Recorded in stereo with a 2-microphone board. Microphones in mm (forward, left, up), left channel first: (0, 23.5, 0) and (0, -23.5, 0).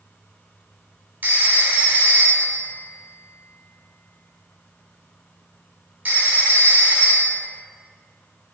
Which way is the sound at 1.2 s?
40° right (ahead or behind).